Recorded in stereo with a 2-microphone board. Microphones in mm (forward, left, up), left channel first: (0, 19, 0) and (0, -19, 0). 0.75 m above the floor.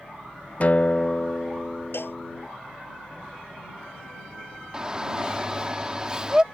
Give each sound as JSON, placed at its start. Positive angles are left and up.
{"t": 0.6, "sound": "a guitar", "side_deg": 45}
{"t": 1.9, "sound": "a cowbell", "side_deg": 80}
{"t": 4.7, "sound": "a shout", "side_deg": -20}